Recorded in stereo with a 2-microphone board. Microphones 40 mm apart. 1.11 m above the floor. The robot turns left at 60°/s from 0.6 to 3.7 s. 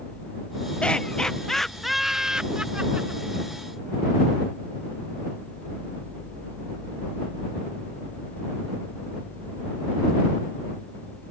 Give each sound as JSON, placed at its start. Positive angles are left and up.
{"t": 0.8, "sound": "laughter", "side_deg": 30}